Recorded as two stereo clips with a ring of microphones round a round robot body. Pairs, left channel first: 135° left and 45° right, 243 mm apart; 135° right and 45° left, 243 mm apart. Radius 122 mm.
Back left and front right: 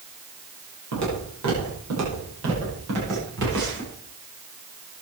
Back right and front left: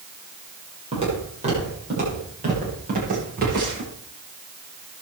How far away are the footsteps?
About 9 m.